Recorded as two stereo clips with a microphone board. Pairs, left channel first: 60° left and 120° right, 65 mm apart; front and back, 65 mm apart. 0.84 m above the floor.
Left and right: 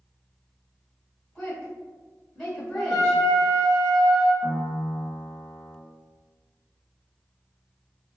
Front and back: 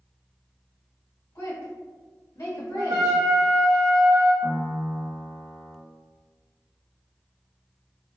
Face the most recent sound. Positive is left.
turn(degrees=105)